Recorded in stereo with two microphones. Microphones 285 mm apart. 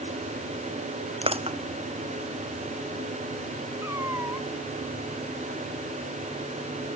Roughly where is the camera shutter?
I don't hear a camera shutter.